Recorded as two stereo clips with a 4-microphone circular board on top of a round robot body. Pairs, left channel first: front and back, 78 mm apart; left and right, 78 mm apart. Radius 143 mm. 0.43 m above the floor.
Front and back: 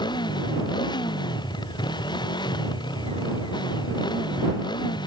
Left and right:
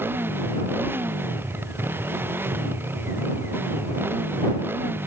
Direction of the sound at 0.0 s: 25° right.